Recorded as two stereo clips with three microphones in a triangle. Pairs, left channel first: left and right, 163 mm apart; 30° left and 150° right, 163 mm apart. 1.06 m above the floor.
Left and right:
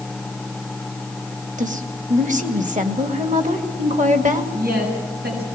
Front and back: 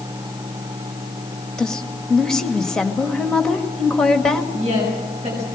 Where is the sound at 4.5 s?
100° right, 6.5 m.